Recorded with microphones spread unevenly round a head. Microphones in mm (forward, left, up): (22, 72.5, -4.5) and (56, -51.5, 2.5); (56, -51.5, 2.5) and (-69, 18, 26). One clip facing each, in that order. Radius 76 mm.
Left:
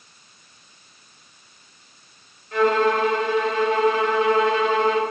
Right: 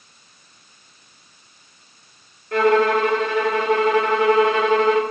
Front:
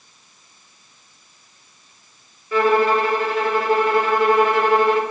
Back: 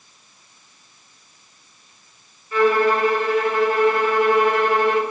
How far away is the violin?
About 4.5 m.